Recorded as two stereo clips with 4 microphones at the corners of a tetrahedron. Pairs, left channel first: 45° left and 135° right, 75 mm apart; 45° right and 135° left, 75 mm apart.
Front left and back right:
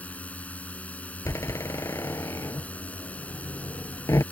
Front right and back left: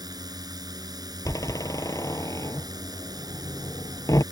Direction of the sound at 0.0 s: 115° left.